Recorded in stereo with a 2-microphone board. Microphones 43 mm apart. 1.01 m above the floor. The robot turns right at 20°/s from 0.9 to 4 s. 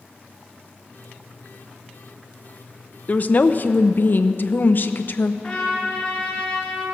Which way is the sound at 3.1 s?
40° left (ahead or behind).